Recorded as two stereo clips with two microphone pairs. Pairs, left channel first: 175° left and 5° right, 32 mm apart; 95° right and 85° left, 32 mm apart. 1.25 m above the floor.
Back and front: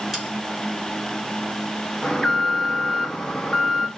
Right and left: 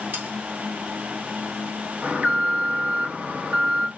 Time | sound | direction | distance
0.1 | sawing | 85° left | 4.5 m
2.0 | an alarm | 105° left | 1.5 m